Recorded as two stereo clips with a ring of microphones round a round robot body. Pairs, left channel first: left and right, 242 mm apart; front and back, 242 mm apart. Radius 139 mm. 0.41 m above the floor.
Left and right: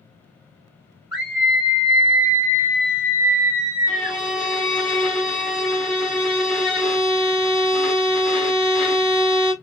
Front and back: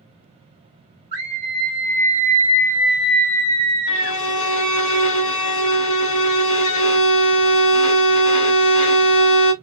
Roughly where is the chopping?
I don't hear chopping.